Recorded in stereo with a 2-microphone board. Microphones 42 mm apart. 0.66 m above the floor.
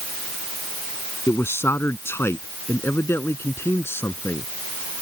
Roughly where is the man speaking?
Left.